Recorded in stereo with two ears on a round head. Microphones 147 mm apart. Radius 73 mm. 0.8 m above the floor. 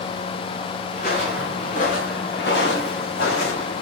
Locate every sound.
0.9 s footsteps: 55° left (ahead or behind), 4 m; by 3.8 s 70° left (ahead or behind), 3 m